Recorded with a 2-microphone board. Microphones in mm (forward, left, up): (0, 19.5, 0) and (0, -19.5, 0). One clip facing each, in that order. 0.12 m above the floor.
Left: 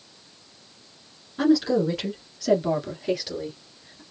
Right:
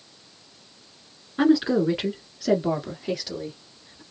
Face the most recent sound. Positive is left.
turn(degrees=10)  # may be behind; listen again after turning